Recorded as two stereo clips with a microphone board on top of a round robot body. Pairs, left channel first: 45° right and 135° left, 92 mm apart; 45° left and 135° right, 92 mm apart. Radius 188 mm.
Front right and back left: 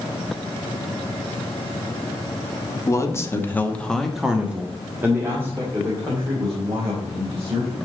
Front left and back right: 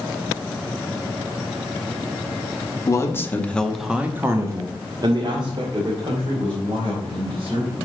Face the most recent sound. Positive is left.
turn(degrees=-170)